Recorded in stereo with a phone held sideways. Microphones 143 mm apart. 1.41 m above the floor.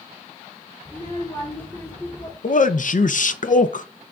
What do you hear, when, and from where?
0.8 s a child speaking: 20° left (ahead or behind), 3 m
2.4 s a man speaking: 65° left (ahead or behind), 0.6 m